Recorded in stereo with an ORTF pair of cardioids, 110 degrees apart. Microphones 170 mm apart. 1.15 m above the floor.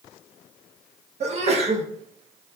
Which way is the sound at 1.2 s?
40° right.